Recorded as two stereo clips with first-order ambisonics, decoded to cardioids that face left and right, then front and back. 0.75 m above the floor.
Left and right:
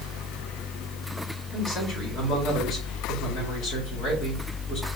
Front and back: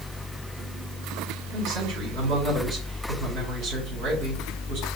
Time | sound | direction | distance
1.5 | a man speaking | 155° left | 5 m